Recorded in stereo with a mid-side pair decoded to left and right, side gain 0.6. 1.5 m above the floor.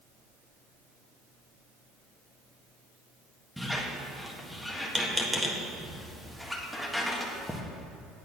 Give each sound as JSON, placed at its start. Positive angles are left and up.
{"t": 3.6, "sound": "a squeak", "azimuth_deg": 0, "distance_m": 1.6}